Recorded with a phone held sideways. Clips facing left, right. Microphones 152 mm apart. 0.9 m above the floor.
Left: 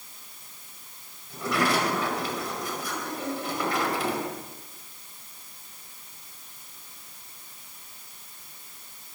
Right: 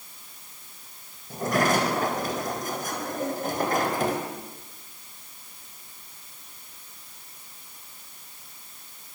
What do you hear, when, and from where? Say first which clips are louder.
1.3 s a sliding door: right 3 dB; 45° right (ahead or behind), 4.5 m